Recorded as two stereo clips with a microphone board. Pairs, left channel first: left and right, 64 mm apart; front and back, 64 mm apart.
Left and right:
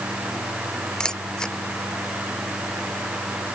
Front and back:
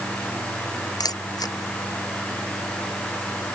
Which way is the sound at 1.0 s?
10° left.